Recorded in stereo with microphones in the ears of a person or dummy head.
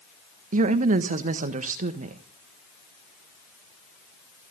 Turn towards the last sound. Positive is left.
turn(degrees=-40)  # may be behind; listen again after turning